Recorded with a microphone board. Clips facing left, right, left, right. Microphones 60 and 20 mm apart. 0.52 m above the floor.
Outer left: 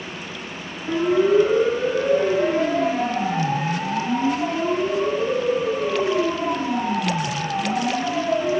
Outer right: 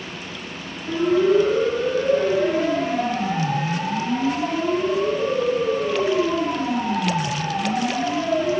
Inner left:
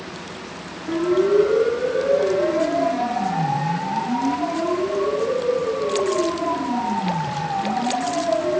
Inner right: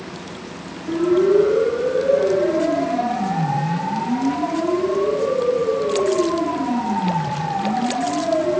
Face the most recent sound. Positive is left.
turn(degrees=-15)  # may be behind; listen again after turning